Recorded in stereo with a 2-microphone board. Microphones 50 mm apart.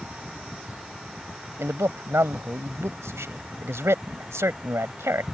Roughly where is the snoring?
I don't hear snoring.